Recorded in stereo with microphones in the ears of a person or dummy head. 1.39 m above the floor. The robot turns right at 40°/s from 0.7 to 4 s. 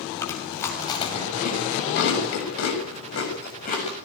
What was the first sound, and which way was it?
Chewing, 20° left (ahead or behind).